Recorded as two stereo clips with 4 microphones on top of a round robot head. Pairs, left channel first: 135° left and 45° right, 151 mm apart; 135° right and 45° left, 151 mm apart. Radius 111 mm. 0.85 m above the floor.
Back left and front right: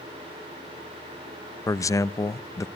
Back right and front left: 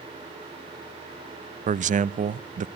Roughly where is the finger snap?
No finger snap in this recording.